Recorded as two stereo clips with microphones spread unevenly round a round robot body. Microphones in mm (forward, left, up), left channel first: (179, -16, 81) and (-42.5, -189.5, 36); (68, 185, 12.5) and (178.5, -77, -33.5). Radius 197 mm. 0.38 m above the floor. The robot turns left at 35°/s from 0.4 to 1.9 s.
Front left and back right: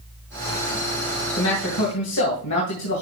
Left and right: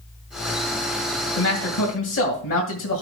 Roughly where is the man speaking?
Left.